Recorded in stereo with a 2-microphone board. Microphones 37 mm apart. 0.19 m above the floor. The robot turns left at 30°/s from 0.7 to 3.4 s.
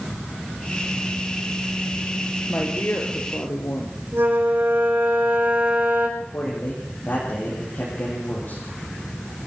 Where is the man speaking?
50° left (ahead or behind), 8 m.